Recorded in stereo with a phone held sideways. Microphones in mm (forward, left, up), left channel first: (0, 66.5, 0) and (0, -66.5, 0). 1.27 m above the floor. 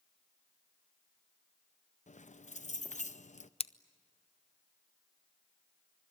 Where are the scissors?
50° left (ahead or behind), 0.5 m.